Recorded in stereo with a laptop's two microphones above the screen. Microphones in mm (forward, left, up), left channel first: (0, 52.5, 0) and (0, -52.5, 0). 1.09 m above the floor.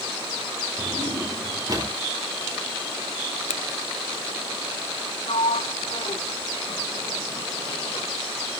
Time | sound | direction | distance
0.8 | a drawer | 35° right (ahead or behind) | 3.5 m
3.5 | a finger snap | 90° left | 0.6 m
5.3 | a sliding door | 60° left (ahead or behind) | 0.7 m